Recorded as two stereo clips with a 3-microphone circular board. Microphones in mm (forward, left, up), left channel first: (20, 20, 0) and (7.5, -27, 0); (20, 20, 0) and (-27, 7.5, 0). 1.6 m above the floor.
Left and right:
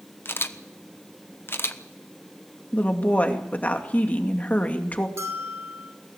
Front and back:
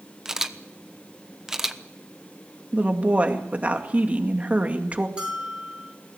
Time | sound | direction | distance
0.2 | a camera shutter | 115° left | 1.1 m
2.7 | a woman speaking | 135° left | 2.5 m
5.2 | a bell | 95° right | 5 m